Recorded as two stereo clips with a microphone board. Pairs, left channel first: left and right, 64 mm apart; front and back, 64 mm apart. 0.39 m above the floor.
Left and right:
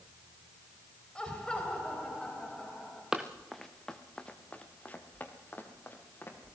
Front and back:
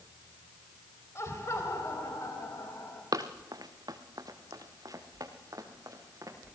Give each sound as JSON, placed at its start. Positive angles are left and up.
{"t": 1.1, "sound": "laughter", "azimuth_deg": 20, "distance_m": 2.5}
{"t": 3.1, "sound": "running footsteps", "azimuth_deg": -170, "distance_m": 1.7}